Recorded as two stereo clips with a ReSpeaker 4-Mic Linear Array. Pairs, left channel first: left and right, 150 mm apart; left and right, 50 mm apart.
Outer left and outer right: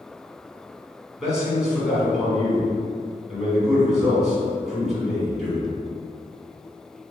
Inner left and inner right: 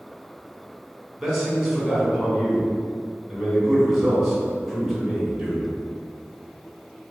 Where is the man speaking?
5° right (ahead or behind), 1.7 m.